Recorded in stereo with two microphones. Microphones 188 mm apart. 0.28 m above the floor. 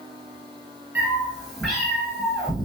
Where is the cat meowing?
10° right (ahead or behind), 1.4 m; by 2.6 s 25° left (ahead or behind), 0.9 m.